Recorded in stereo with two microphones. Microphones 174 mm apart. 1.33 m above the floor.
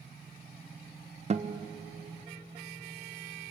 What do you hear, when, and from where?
1.3 s a guitar: 40° right (ahead or behind), 1.1 m